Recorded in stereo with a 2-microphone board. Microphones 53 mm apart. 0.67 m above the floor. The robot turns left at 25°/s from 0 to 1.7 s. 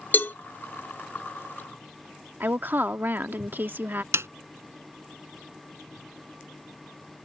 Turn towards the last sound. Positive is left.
turn(degrees=-60)  # may be behind; listen again after turning